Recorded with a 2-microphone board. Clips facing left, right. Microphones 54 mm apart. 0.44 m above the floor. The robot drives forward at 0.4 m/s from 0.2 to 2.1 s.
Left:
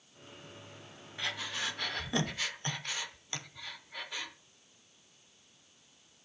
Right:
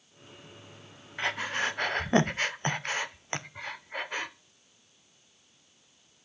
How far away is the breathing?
About 0.8 m.